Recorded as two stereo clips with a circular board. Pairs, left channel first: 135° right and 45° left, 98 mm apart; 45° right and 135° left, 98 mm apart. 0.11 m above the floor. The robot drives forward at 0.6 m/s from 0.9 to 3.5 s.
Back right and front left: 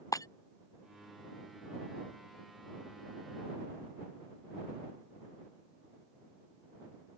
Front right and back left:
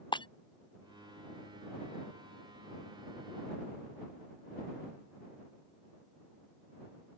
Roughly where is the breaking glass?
Right.